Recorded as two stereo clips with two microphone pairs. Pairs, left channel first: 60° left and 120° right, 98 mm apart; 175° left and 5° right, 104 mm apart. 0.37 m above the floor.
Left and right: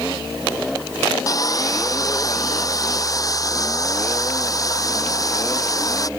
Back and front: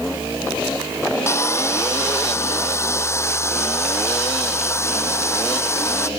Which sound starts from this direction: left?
Sawing, at 1.3 s.